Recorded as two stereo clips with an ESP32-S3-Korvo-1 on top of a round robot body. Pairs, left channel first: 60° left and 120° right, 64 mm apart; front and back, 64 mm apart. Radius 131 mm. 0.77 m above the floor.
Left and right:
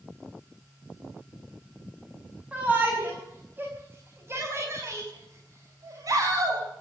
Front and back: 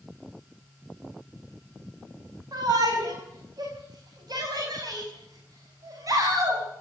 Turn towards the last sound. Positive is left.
turn(degrees=-145)